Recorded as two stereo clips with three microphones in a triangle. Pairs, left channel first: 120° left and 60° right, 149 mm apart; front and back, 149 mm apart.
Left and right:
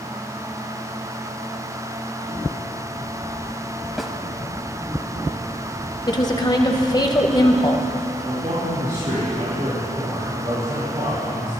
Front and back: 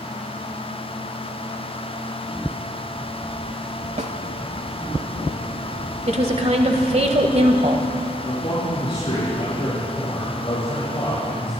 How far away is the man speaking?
About 5.5 m.